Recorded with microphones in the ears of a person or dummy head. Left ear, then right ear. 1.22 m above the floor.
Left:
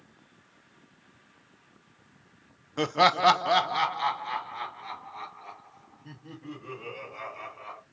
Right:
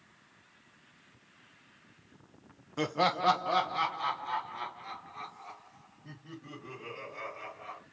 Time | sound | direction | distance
2.8 | laughter | 10° left (ahead or behind) | 0.5 m